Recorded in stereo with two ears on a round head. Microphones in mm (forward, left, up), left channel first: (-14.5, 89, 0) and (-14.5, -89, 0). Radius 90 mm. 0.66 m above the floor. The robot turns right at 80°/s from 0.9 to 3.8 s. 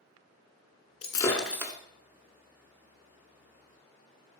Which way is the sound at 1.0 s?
145° left.